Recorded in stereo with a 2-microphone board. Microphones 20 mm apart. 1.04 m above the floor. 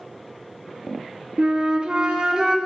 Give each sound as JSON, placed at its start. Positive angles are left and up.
{"t": 1.4, "sound": "a flute", "side_deg": -55, "distance_m": 0.9}